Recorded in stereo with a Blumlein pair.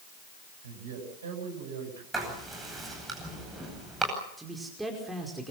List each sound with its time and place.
0.6 s a man speaking: 65° right, 8.5 m
2.1 s writing: 10° right, 9.5 m
4.4 s a man speaking: 5° right, 5 m